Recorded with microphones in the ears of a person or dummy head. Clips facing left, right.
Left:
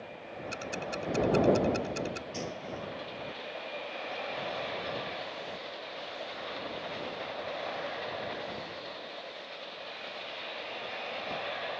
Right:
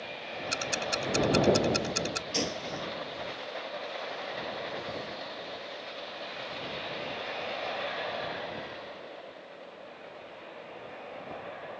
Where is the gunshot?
80° right.